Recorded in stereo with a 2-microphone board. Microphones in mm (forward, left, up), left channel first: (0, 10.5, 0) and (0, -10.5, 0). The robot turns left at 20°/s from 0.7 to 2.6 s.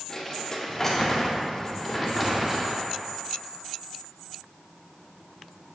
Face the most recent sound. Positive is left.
turn(degrees=-20)